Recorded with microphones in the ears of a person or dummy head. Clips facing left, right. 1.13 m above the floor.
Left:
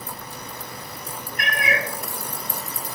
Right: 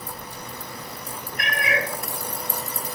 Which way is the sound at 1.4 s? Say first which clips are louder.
Even; 50° left (ahead or behind).